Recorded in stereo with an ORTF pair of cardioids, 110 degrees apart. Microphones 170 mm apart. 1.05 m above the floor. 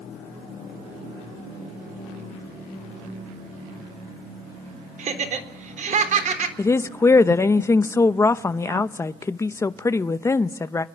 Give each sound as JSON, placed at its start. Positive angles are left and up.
{"t": 5.0, "sound": "laughter", "azimuth_deg": -50, "distance_m": 3.5}
{"t": 6.6, "sound": "a woman speaking", "azimuth_deg": 15, "distance_m": 0.8}